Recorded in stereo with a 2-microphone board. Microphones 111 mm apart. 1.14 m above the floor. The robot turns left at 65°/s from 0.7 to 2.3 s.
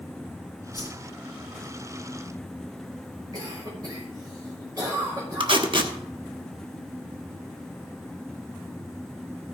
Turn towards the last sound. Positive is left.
turn(degrees=-50)  # may be behind; listen again after turning